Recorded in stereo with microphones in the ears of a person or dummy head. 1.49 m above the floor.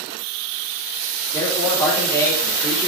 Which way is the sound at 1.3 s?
10° left (ahead or behind).